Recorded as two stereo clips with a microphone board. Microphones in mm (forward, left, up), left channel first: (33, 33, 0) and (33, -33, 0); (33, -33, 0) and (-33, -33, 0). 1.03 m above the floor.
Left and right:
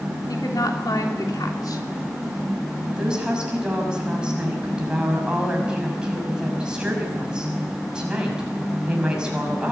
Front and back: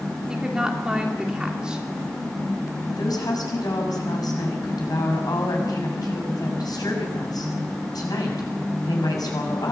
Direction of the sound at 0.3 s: 100° left.